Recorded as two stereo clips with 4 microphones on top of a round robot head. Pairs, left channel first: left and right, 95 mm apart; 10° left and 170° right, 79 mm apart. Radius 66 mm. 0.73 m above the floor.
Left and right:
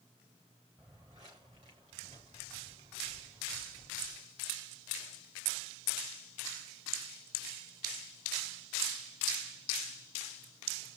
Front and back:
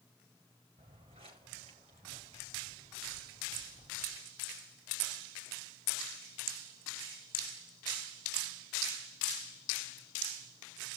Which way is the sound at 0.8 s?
155° right.